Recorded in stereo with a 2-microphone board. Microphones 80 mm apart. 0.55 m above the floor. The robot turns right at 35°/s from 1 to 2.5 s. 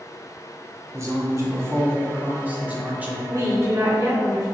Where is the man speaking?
85° right, 0.8 m; by 3.2 s 35° right, 0.8 m.